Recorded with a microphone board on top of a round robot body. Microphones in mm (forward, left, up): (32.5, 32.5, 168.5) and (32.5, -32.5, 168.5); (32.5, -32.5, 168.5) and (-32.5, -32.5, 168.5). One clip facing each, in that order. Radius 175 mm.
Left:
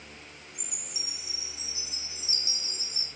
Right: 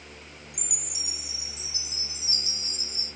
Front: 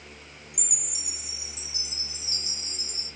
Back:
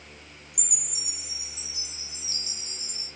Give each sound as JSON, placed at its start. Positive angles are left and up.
{"t": 0.5, "sound": "a chime", "azimuth_deg": -85, "distance_m": 3.0}